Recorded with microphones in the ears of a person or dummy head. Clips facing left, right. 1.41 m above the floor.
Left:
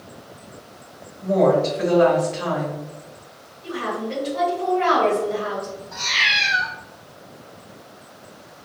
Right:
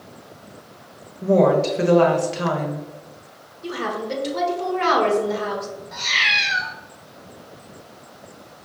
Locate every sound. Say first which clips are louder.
1.2 s a woman speaking: right 1 dB; 55° right (ahead or behind), 1.1 m
3.6 s a woman speaking: even; 60° right (ahead or behind), 1.3 m
5.9 s a cat meowing: even; 20° right (ahead or behind), 1.2 m